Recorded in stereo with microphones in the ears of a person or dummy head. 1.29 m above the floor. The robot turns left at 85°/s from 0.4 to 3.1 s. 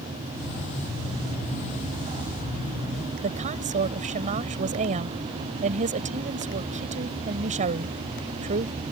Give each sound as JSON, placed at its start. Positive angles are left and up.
{"t": 3.2, "sound": "a woman speaking", "side_deg": -40}